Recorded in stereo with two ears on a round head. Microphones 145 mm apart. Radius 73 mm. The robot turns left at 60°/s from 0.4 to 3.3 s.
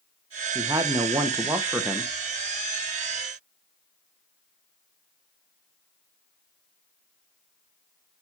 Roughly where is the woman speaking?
Right.